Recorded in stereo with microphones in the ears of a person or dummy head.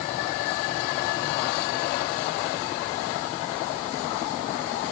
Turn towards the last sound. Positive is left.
No sound to turn to.